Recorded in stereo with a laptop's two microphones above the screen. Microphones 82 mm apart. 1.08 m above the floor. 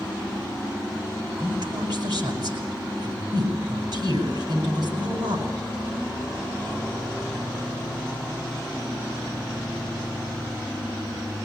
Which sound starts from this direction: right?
A woman speaking, at 1.4 s.